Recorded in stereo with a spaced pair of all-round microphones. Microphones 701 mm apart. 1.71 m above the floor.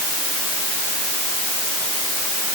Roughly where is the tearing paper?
I don't hear tearing paper.